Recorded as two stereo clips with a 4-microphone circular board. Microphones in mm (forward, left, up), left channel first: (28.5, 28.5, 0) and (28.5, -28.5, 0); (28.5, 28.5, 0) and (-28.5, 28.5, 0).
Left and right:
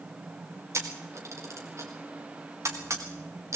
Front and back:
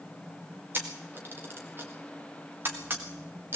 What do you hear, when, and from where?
0.7 s a camera shutter: 125° right, 3 m